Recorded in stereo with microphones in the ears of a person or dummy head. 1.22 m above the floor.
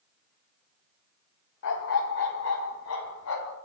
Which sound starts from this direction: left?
A dog barking, at 1.6 s.